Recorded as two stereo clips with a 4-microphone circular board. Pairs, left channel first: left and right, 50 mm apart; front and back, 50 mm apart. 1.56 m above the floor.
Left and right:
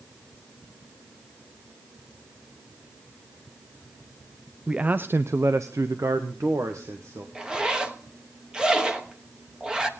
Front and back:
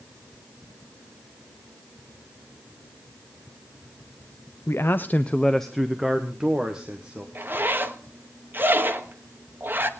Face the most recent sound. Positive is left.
turn(degrees=-160)